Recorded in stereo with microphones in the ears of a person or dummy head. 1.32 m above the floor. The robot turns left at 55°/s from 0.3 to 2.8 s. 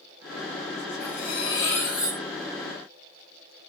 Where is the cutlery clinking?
55° left, 3.5 m; by 2.2 s 10° right, 3.5 m.